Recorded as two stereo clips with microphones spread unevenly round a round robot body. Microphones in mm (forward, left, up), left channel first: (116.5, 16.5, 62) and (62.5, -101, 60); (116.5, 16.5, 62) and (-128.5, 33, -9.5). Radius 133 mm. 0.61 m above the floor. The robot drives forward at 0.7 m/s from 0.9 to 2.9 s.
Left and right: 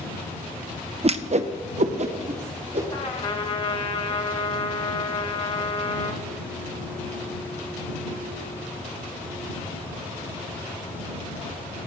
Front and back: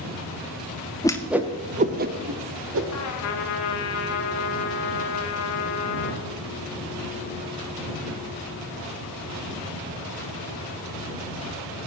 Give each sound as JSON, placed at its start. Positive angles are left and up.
{"t": 1.0, "sound": "a whoosh", "azimuth_deg": -90, "distance_m": 0.6}
{"t": 2.9, "sound": "a trumpet", "azimuth_deg": 25, "distance_m": 2.0}